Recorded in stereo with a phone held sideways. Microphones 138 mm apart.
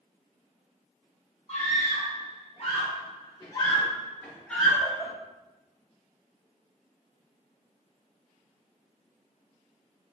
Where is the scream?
50° left (ahead or behind), 1.6 m; by 5.1 s 5° right (ahead or behind), 1.0 m.